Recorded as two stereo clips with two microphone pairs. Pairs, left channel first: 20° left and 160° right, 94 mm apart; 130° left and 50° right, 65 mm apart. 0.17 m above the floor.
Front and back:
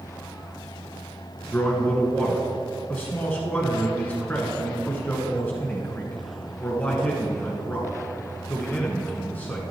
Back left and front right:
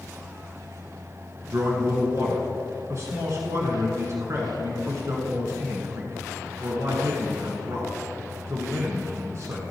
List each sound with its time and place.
1.5 s a man speaking: 45° right, 1.6 m